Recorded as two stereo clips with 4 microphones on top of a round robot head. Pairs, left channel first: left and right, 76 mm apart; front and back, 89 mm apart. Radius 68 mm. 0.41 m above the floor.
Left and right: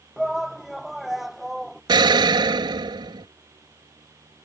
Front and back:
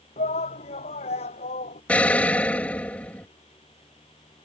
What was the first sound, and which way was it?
A shout, 5° right.